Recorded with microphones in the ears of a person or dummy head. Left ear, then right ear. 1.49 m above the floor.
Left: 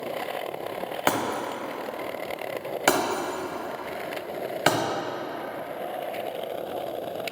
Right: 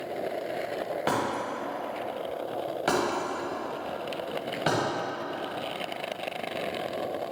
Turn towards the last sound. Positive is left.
turn(degrees=25)  # may be behind; listen again after turning